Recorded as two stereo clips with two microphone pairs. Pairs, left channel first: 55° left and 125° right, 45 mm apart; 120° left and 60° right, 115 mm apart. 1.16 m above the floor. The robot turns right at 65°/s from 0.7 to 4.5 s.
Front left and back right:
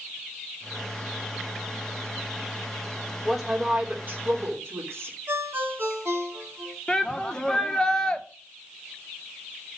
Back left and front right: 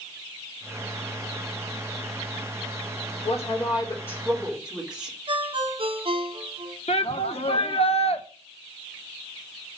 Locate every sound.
3.2 s a woman speaking: 140° left, 3 m; by 5.2 s 140° right, 3 m
5.3 s a ringtone: 95° right, 2 m
6.9 s a shout: 130° left, 1.1 m